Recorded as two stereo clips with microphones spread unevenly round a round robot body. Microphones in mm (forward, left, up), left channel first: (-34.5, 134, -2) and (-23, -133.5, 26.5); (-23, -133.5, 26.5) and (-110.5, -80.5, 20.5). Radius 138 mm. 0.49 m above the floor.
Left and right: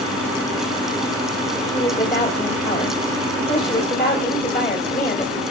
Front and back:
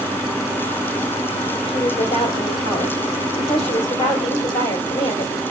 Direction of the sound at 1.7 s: 15° left.